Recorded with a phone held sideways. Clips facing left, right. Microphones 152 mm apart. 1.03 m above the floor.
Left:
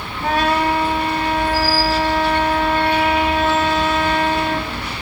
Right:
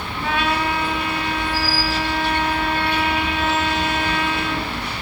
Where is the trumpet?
40° left (ahead or behind), 3 m.